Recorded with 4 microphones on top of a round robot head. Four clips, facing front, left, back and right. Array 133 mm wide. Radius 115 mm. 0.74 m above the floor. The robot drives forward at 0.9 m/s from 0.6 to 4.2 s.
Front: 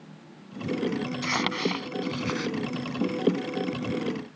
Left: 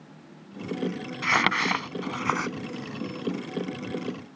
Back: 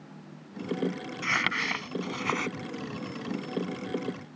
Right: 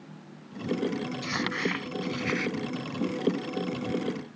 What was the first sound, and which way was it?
Crumpling, 70° left.